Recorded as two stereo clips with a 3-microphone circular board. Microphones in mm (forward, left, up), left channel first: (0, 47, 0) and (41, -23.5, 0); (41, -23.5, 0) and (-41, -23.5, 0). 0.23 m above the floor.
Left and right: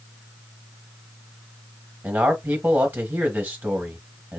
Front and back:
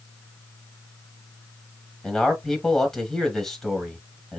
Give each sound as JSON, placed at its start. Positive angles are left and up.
{"t": 2.0, "sound": "a man speaking", "azimuth_deg": -80, "distance_m": 1.0}